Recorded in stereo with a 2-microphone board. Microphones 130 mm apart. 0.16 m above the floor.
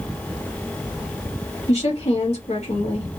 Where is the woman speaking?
60° left (ahead or behind), 2.5 m.